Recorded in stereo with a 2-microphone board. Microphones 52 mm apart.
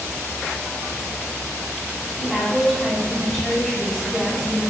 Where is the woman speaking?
15° left (ahead or behind), 9.5 m.